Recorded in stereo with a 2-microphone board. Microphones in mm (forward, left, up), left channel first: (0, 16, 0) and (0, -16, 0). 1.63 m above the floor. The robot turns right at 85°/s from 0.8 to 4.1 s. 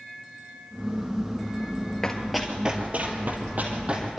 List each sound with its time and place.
2.0 s running footsteps: 15° left (ahead or behind), 2 m; by 4.2 s 10° right (ahead or behind), 4 m